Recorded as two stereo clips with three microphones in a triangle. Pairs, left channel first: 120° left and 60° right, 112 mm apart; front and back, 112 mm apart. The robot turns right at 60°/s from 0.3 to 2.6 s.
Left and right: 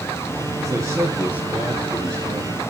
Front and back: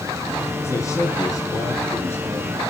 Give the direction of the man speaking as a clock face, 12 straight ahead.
1 o'clock.